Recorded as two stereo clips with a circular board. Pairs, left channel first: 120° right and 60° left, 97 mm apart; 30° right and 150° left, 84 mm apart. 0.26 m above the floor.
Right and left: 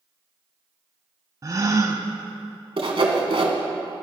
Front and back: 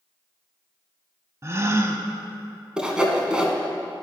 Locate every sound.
1.4 s a gasp: 105° left, 0.5 m
2.8 s sawing: 70° left, 0.9 m